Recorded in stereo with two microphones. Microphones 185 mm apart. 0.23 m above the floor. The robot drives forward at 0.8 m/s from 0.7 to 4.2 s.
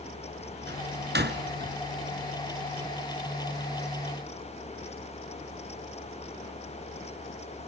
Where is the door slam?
65° right (ahead or behind), 2 m.